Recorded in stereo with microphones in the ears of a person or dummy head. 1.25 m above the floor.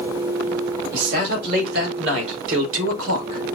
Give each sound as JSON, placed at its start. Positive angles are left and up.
{"t": 0.9, "sound": "a man speaking", "side_deg": -50, "distance_m": 2.0}